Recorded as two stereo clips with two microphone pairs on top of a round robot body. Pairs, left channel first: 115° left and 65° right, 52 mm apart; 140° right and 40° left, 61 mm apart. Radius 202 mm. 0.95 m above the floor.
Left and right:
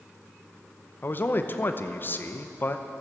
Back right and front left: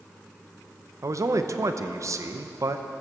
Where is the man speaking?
70° left, 1.0 m.